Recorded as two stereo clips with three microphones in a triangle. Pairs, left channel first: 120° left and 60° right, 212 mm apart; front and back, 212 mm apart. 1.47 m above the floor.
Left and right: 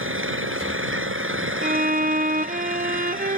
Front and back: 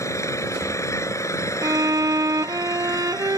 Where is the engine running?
75° right.